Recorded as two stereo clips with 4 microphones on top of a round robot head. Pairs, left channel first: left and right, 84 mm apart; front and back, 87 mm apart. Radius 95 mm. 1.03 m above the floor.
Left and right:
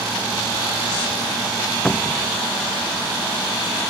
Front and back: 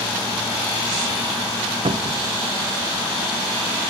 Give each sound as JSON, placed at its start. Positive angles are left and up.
{"t": 1.9, "sound": "a cupboard door", "azimuth_deg": 165}